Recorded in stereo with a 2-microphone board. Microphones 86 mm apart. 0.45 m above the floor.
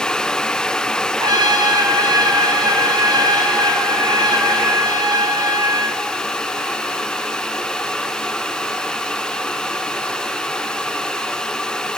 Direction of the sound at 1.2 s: 55° right (ahead or behind).